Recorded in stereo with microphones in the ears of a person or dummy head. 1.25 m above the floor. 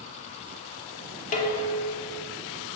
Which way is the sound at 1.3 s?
40° left (ahead or behind).